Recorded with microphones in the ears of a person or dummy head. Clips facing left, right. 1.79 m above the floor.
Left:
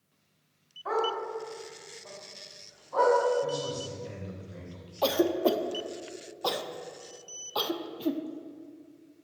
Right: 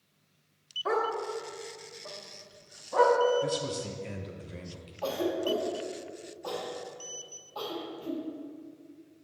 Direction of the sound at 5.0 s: 80° left.